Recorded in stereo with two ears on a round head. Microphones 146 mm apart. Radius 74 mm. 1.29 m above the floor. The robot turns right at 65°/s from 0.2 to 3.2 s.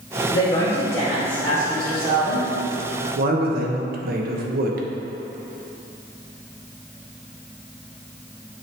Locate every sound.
0.3 s a woman speaking: 100° left, 2.0 m; by 2.5 s 115° right, 2.0 m
3.1 s a man speaking: 60° right (ahead or behind), 0.9 m